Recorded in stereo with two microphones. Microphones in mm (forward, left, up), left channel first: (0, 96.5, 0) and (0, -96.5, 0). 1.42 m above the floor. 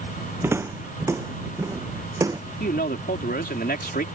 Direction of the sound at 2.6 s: 55° left (ahead or behind).